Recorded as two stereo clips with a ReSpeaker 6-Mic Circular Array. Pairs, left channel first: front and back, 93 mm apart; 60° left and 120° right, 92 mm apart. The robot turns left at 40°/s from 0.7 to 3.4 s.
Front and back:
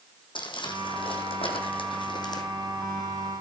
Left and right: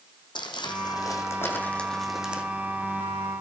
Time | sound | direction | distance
0.3 | crumpling | 25° left | 1.7 m